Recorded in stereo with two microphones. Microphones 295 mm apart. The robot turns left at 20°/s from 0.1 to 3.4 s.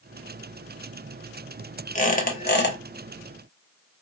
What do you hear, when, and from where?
1.9 s a squeak: 25° left (ahead or behind), 0.8 m; by 2.8 s 35° left (ahead or behind), 0.8 m